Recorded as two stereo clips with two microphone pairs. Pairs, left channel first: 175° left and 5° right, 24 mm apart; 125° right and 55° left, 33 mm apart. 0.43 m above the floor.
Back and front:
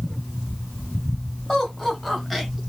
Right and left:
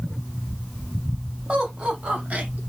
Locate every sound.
1.5 s laughter: 115° left, 2.5 m; by 2.6 s 80° left, 1.9 m